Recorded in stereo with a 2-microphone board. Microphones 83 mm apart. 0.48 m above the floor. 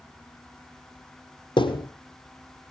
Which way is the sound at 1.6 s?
70° left (ahead or behind).